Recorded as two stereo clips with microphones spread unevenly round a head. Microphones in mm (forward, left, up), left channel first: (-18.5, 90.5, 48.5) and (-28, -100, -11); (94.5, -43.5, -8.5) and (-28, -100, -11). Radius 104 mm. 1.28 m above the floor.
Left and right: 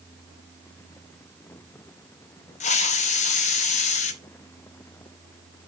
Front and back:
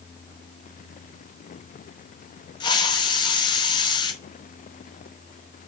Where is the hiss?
75° left, 0.7 m.